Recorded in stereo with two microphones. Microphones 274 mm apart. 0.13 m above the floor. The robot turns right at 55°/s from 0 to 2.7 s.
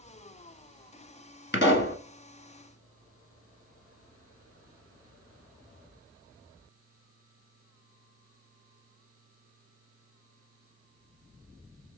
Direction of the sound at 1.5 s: 40° left (ahead or behind).